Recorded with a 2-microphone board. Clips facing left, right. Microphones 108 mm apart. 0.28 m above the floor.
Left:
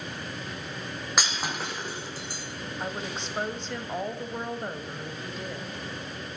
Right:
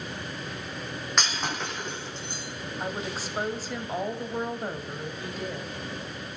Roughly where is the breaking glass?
Centre.